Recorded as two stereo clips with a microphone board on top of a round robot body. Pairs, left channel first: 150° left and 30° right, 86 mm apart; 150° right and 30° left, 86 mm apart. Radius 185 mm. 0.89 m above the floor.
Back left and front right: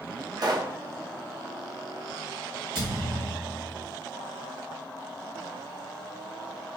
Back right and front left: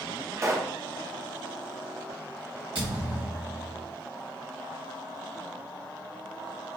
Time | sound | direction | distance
0.4 | a pop | 15° right | 0.8 m
2.8 | a thud | straight ahead | 1.2 m